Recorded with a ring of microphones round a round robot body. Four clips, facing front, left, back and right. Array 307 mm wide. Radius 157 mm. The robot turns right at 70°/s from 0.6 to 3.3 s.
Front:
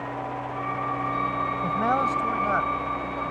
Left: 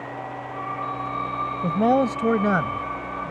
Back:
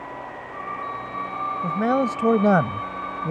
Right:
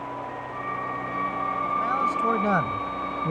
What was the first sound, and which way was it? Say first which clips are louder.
A man speaking: left 7 dB, back 3 dB; 105° left.